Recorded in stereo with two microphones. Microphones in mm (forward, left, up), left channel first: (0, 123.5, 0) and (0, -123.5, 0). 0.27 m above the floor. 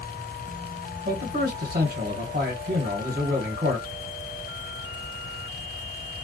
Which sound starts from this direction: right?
A man speaking, at 1.1 s.